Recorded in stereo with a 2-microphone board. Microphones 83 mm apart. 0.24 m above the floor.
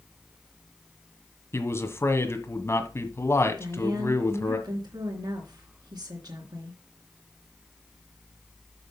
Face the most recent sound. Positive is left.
turn(degrees=-55)  # may be behind; listen again after turning